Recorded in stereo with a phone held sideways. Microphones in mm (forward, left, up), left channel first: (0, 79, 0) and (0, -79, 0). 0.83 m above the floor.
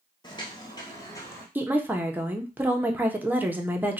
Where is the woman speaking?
10° right (ahead or behind), 0.5 m.